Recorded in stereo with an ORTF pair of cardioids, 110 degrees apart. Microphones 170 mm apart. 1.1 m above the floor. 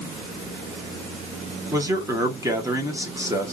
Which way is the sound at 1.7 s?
20° right.